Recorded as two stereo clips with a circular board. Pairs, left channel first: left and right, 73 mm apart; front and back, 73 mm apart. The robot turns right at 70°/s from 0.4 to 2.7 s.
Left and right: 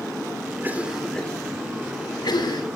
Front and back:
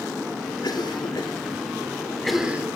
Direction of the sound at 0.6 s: 30° right.